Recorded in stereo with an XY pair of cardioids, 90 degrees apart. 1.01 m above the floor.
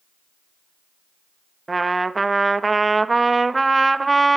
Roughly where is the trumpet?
Ahead right.